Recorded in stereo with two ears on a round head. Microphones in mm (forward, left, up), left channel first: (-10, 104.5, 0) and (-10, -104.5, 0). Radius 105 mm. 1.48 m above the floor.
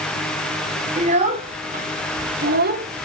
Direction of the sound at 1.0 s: 30° right (ahead or behind).